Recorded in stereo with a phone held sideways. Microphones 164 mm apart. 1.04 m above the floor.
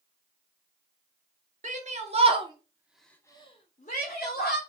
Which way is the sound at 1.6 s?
50° right (ahead or behind).